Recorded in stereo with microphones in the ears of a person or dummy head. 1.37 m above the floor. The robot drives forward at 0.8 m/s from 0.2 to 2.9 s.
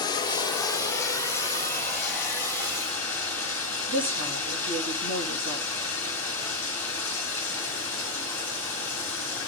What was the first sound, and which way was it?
Running water, 25° left (ahead or behind).